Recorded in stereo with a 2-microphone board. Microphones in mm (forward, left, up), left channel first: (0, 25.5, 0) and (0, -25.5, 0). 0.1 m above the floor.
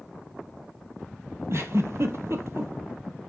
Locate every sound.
1.5 s a giggle: 65° right (ahead or behind), 1.1 m